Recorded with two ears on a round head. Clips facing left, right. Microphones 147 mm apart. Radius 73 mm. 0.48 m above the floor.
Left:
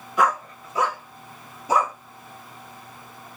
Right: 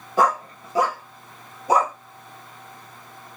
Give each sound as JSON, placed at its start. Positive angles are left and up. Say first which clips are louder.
{"t": 0.2, "sound": "a dog barking", "louder": "right 2 dB", "side_deg": -30, "distance_m": 1.4}